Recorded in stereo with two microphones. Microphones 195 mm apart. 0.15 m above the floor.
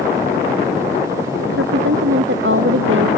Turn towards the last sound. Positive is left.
turn(degrees=-85)